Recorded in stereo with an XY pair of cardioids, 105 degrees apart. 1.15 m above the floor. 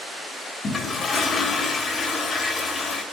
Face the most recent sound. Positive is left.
turn(degrees=45)